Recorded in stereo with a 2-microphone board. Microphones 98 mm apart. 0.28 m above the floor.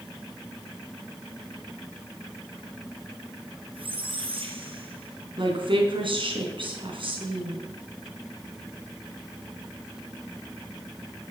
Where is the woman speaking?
60° right (ahead or behind), 3.5 m.